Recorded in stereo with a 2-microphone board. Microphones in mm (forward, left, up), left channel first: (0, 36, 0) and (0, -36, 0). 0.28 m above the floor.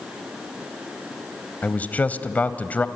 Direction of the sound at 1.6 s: 20° left (ahead or behind).